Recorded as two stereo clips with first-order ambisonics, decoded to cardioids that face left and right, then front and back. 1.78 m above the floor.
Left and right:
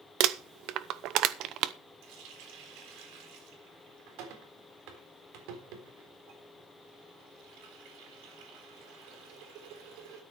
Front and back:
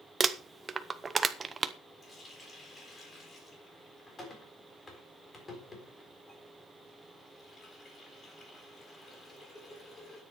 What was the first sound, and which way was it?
Crumpling, 110° right.